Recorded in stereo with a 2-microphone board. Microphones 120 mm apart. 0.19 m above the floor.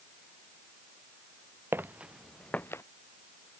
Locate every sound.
1.7 s footsteps: 20° right (ahead or behind); by 2.8 s 25° left (ahead or behind)